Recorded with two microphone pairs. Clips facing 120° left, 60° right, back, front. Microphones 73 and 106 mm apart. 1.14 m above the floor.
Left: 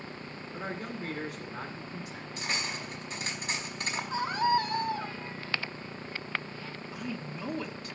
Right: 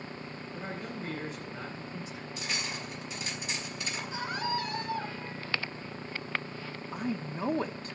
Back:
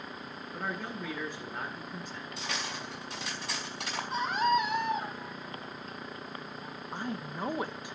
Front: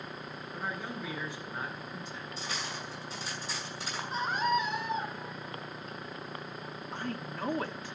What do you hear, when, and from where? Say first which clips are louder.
0.5 s a man speaking: left 2 dB, back 1 dB; 145° left, 8.5 m
2.4 s cutlery clinking: left 3 dB, back 2 dB; 165° left, 5 m
4.1 s a scream: left 7 dB, back 2 dB; 160° left, 8 m
6.9 s a woman speaking: right 5 dB, back 1 dB; 105° right, 1.3 m